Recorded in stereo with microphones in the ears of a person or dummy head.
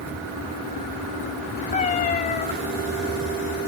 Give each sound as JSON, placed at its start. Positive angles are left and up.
{"t": 1.7, "sound": "a cat meowing", "side_deg": 35, "distance_m": 1.2}